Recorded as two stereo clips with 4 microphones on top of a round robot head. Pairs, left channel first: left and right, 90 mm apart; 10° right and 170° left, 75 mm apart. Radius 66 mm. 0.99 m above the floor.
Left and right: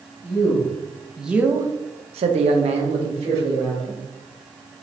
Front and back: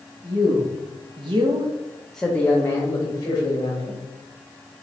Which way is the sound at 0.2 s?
160° left.